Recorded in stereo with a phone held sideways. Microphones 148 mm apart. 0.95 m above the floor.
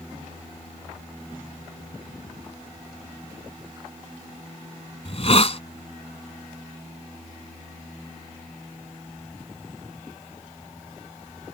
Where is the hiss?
45° left (ahead or behind).